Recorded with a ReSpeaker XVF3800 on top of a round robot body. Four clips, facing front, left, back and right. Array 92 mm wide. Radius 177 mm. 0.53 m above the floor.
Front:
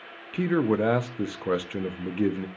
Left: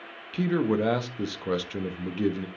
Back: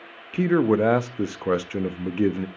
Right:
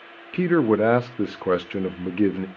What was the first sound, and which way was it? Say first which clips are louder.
A man speaking: right 6 dB, back 4 dB; 115° right.